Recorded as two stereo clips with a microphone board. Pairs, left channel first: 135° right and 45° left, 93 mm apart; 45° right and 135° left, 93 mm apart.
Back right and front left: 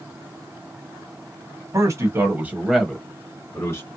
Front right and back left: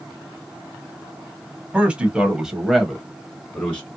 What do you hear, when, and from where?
1.7 s a man speaking: 65° left, 1.2 m; by 3.9 s 115° right, 1.2 m